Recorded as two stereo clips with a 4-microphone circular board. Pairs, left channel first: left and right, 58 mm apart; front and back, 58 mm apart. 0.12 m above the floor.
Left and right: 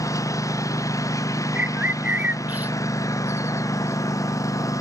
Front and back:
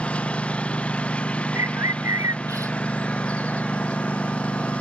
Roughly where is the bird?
Behind right.